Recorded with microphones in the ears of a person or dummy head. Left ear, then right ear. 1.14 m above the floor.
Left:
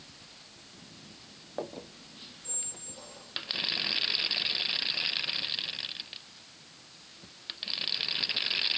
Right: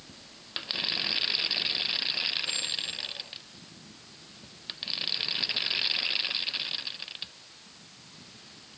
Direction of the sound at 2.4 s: 65° left (ahead or behind).